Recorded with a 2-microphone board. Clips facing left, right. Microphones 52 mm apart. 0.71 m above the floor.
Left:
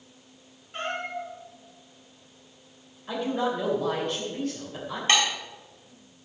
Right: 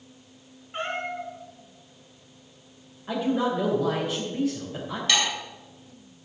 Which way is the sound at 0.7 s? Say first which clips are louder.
Right 1 dB; 15° right (ahead or behind).